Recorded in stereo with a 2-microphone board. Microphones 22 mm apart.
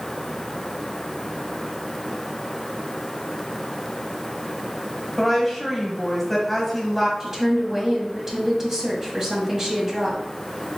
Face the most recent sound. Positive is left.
turn(degrees=-20)  # may be behind; listen again after turning